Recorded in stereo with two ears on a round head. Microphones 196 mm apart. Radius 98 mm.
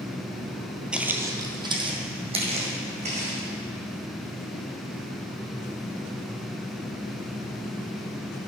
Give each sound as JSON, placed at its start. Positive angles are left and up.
{"t": 0.9, "sound": "footsteps", "side_deg": -5, "distance_m": 1.0}